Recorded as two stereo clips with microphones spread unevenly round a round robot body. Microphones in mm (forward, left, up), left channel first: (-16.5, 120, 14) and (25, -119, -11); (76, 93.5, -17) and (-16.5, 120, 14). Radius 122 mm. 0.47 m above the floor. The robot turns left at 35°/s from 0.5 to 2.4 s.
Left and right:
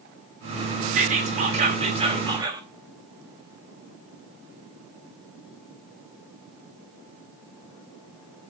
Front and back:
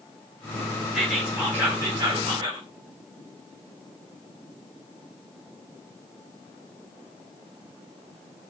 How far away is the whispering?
About 1.6 m.